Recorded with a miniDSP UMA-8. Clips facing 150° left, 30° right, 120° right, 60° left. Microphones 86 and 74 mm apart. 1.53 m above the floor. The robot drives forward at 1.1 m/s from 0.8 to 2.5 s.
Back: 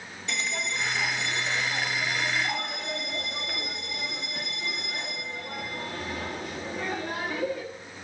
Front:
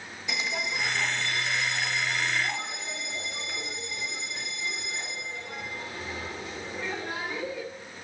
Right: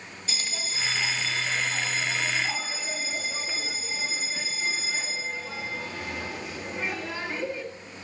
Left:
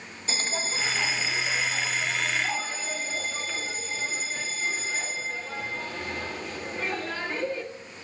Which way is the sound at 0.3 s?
50° left.